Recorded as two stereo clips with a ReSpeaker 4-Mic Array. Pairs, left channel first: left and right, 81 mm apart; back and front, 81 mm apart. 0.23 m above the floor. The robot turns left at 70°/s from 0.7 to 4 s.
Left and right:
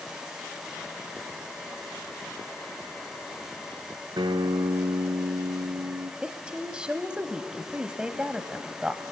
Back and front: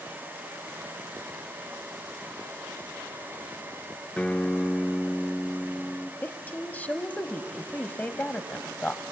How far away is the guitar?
About 0.7 m.